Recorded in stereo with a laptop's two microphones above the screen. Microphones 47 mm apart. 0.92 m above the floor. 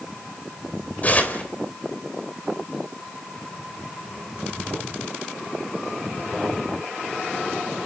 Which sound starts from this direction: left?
Tearing paper, at 1.0 s.